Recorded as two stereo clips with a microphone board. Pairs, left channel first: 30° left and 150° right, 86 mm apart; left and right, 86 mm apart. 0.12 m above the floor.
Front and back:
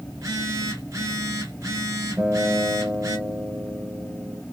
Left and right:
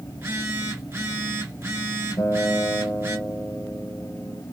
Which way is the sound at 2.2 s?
135° left.